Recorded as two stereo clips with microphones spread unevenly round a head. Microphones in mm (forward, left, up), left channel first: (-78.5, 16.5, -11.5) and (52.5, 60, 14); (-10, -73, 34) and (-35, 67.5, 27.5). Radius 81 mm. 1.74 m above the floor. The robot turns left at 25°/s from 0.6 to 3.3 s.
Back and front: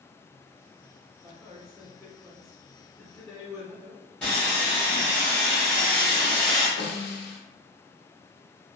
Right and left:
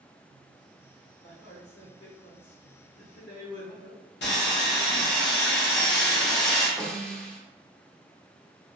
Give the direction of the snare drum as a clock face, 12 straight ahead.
5 o'clock.